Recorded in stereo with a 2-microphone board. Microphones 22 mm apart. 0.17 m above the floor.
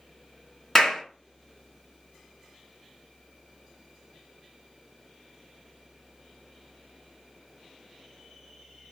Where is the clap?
20° left (ahead or behind), 1.7 m.